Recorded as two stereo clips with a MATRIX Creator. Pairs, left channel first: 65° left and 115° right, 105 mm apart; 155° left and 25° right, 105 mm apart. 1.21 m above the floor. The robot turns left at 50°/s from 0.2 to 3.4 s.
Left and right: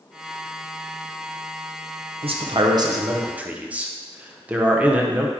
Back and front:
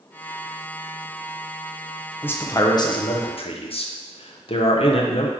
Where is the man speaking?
130° right, 0.6 m; by 5.3 s 170° left, 0.6 m.